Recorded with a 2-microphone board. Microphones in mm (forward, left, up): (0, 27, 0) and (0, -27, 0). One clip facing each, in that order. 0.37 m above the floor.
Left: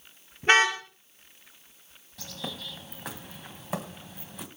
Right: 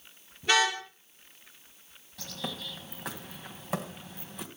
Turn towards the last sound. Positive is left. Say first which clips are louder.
# even
turn(degrees=0)  # may be behind; listen again after turning